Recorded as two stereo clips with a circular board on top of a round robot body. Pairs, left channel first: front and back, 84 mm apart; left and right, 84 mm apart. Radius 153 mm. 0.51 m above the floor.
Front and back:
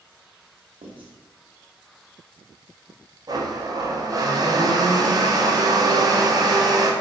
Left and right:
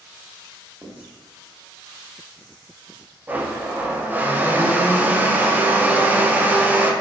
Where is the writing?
165° right, 1.0 m.